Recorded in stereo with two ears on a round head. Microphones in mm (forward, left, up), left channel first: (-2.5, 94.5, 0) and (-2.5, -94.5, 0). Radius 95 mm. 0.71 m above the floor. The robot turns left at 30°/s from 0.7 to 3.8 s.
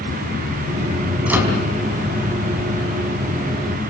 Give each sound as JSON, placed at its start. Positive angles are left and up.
{"t": 1.3, "sound": "a microwave", "side_deg": -5, "distance_m": 4.0}